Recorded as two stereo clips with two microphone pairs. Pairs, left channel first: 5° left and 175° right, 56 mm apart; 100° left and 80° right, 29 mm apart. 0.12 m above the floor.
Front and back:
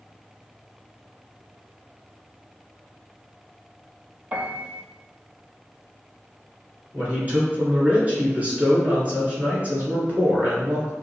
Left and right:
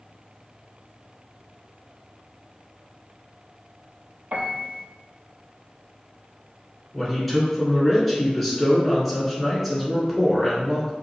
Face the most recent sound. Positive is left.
turn(degrees=-170)